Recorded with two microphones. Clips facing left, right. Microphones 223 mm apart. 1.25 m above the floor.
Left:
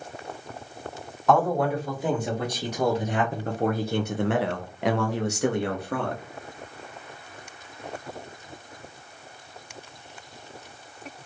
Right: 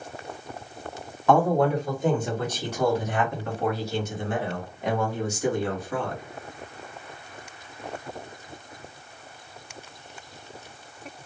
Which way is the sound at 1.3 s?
Centre (ahead or behind).